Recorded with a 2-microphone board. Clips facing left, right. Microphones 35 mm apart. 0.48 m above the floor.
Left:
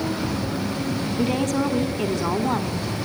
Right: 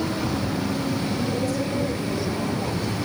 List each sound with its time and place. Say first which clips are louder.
1.2 s a woman speaking: left 3 dB; 55° left (ahead or behind), 4.5 m